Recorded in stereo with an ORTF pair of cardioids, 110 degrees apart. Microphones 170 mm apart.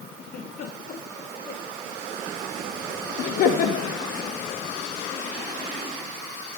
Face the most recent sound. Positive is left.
turn(degrees=65)